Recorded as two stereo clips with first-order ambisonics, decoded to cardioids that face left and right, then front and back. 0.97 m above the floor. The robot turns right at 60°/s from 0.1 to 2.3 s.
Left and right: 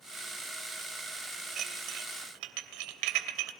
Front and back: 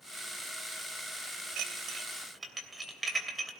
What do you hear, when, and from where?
1.6 s dishes clattering: 145° right, 2.5 m; by 3.5 s 100° right, 2.5 m